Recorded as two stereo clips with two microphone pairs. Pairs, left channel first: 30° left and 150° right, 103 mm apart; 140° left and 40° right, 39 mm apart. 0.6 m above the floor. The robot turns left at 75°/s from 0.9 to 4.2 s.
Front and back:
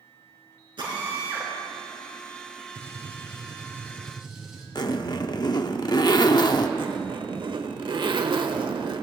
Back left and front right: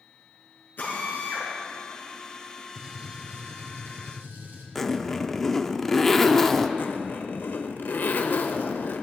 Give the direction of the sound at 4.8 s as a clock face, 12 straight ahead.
10 o'clock.